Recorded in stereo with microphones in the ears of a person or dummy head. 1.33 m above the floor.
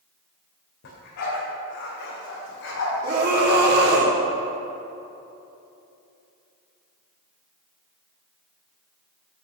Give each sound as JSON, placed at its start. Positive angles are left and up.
{"t": 0.8, "sound": "a dog barking", "side_deg": 60, "distance_m": 2.5}
{"t": 3.0, "sound": "a scream", "side_deg": -55, "distance_m": 3.0}